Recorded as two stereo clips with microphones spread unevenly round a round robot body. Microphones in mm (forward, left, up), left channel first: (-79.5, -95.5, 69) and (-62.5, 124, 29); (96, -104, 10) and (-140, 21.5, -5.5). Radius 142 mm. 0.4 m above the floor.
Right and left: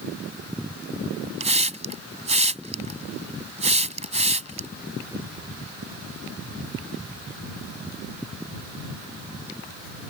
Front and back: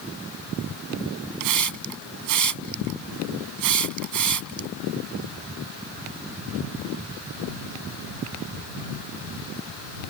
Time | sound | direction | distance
1.4 | a hiss | 145° left | ?